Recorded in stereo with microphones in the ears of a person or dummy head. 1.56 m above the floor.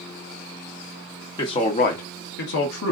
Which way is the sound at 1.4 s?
30° left (ahead or behind).